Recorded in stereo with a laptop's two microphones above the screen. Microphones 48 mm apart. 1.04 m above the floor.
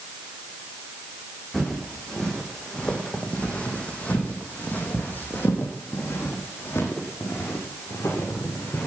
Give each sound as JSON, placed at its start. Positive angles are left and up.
{"t": 1.5, "sound": "footsteps", "side_deg": 10, "distance_m": 4.0}